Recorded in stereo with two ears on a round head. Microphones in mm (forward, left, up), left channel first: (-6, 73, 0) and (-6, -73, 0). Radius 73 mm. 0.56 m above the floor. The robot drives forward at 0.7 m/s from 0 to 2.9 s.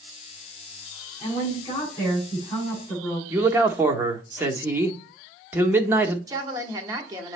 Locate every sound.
1.2 s a woman speaking: 25° left (ahead or behind), 5.5 m; by 3.2 s 20° left (ahead or behind), 6.5 m
3.3 s a man speaking: 15° right (ahead or behind), 0.9 m
6.3 s a woman speaking: 20° right (ahead or behind), 1.1 m